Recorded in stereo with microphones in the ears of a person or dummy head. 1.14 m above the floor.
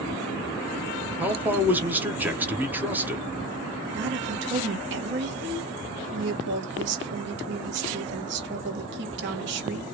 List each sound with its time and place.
1.2 s a man speaking: 5° right (ahead or behind), 0.7 m
3.9 s a woman speaking: 60° right (ahead or behind), 1.3 m